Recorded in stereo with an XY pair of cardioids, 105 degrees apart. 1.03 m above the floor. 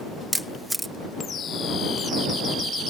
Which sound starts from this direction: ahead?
A camera shutter, at 0.3 s.